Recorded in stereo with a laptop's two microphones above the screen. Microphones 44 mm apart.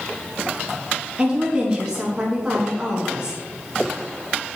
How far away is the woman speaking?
About 1.3 m.